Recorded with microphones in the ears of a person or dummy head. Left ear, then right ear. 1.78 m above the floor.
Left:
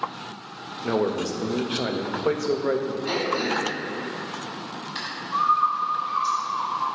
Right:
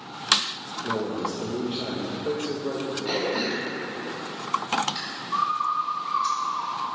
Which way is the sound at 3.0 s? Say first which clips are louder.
Even; 5° right (ahead or behind).